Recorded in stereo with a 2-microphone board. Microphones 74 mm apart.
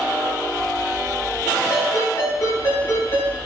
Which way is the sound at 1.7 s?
35° left (ahead or behind).